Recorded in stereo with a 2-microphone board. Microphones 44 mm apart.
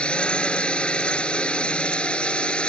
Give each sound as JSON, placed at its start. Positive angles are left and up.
{"t": 0.0, "sound": "a drone", "side_deg": 25}